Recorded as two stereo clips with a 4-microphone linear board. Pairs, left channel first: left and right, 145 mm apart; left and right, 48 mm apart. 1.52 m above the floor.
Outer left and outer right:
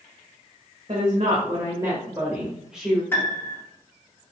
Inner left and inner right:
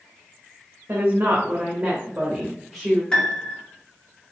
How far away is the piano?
About 2.0 m.